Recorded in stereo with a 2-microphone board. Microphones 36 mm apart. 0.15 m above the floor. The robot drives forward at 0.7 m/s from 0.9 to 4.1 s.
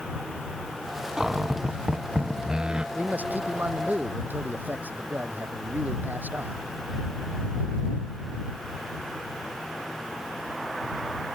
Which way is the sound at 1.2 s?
10° right (ahead or behind).